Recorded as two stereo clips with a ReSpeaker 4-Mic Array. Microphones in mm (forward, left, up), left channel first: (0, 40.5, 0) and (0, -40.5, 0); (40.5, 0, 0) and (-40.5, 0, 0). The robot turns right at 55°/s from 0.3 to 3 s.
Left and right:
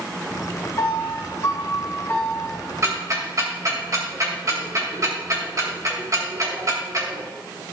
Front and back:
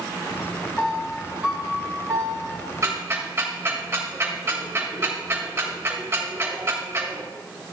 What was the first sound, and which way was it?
A piano, 70° left.